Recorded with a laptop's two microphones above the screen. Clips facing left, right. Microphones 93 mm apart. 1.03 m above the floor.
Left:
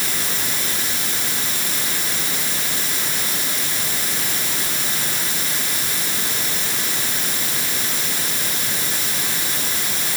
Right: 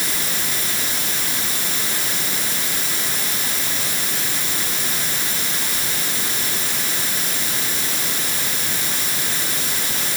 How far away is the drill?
I don't hear a drill.